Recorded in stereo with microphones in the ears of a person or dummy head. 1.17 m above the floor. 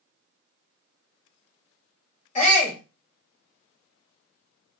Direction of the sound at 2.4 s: 40° left (ahead or behind).